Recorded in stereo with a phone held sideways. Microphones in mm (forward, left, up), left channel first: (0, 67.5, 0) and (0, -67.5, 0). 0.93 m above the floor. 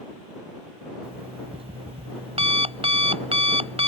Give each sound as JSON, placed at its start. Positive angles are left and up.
{"t": 1.0, "sound": "an alarm clock", "side_deg": -45}